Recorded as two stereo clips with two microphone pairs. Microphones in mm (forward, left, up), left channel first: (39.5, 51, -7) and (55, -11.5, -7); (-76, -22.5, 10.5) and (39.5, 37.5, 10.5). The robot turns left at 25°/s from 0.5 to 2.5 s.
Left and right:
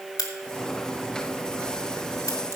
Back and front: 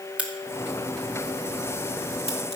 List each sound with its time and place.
0.2 s a crack: 105° left, 1.7 m; by 2.6 s 55° left, 1.7 m